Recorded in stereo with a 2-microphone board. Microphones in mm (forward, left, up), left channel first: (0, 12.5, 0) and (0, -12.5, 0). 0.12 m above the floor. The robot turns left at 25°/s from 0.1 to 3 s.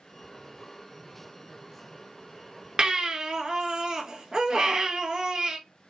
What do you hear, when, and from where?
2.8 s a baby crying: 35° right (ahead or behind), 0.5 m